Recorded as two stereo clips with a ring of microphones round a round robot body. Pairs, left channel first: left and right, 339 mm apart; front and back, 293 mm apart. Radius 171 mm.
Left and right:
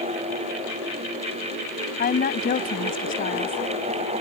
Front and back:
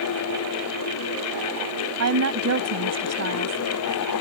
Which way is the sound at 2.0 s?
150° left.